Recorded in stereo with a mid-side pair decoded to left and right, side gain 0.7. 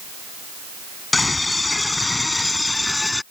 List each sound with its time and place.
1.1 s a scream: 15° left; by 3.2 s 10° left